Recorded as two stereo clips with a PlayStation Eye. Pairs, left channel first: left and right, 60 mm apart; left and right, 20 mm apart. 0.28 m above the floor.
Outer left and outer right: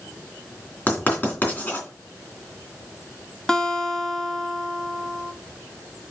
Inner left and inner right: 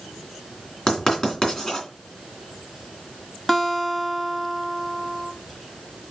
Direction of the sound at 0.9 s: 30° left (ahead or behind).